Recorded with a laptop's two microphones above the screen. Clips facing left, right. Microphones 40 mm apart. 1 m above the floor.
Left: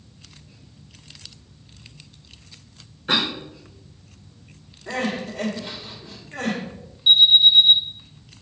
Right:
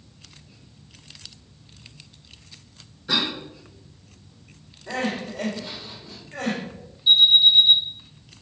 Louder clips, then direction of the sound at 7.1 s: Left 2 dB; 70° left (ahead or behind).